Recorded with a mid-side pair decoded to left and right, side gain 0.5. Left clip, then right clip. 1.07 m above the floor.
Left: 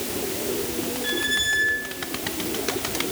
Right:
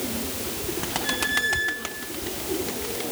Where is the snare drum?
No snare drum in this recording.